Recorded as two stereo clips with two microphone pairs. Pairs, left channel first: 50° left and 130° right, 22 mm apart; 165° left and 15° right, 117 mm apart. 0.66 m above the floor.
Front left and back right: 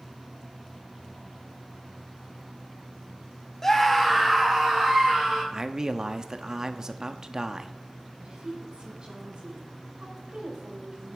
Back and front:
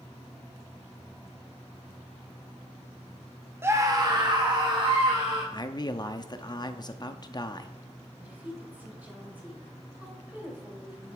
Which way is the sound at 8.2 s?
90° right.